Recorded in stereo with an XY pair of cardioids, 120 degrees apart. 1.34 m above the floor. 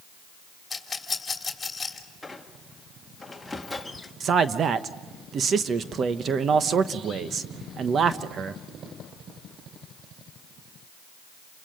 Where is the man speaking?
45° right, 1.0 m.